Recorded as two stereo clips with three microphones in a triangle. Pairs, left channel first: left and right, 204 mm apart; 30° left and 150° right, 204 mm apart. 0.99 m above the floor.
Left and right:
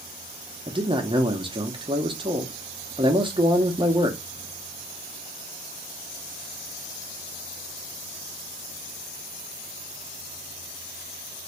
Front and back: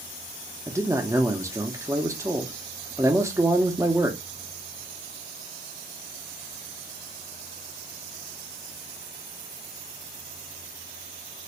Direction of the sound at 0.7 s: 95° right.